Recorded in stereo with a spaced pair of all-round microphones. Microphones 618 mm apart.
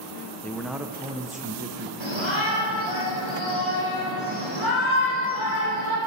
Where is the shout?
45° left (ahead or behind), 4.5 m.